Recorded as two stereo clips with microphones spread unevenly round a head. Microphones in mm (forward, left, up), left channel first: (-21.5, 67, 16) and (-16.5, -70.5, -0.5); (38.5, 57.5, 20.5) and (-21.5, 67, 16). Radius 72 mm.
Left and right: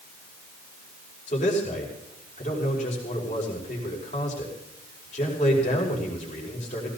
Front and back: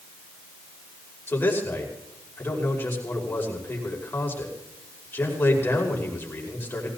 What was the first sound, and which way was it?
A man speaking, 45° left.